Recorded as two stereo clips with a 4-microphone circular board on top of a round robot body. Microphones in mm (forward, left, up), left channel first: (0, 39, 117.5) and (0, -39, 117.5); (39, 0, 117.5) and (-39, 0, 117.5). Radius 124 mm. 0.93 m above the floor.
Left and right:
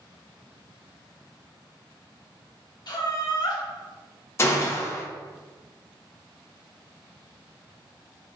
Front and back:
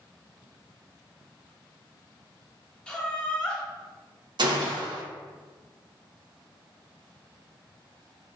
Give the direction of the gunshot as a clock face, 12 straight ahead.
7 o'clock.